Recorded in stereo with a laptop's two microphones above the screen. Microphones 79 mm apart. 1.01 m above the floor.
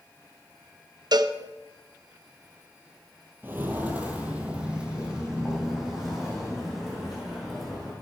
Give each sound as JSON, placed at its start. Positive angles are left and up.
{"t": 1.1, "sound": "a cowbell", "side_deg": -65, "distance_m": 0.5}
{"t": 3.4, "sound": "footsteps", "side_deg": -30, "distance_m": 1.3}